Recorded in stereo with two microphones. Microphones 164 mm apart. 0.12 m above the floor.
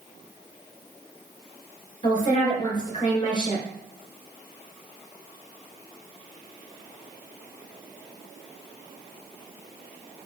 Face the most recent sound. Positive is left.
turn(degrees=25)  # may be behind; listen again after turning